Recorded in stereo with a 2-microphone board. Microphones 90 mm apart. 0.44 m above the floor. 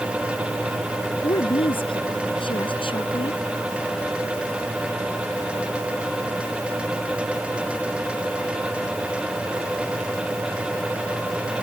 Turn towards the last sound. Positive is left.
turn(degrees=75)  # may be behind; listen again after turning